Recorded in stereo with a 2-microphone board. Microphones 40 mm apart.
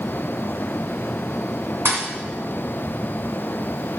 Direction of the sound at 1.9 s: 75° right (ahead or behind).